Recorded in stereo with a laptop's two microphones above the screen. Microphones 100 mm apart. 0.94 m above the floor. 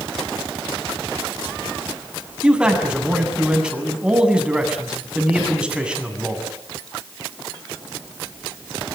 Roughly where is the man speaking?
Centre.